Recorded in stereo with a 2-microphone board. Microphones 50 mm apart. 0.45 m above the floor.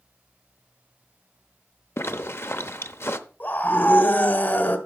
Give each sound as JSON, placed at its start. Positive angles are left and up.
{"t": 2.0, "sound": "a zipper", "side_deg": 55, "distance_m": 0.7}
{"t": 3.4, "sound": "a scream", "side_deg": 40, "distance_m": 1.4}